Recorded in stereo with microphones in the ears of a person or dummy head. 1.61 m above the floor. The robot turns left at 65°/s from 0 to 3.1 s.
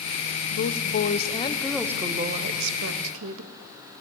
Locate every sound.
0.5 s a woman speaking: 80° left, 0.8 m; by 3.5 s 90° right, 0.8 m